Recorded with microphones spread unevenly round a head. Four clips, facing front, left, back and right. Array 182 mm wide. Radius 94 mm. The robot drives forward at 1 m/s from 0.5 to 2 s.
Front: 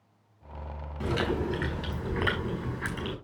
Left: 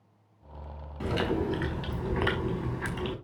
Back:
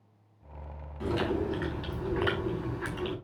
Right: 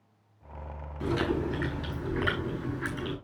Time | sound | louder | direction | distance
1.0 | chewing | even, even | 60° left | 6 m